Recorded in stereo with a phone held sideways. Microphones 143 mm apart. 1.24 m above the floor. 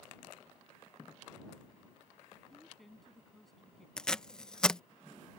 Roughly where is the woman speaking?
Centre.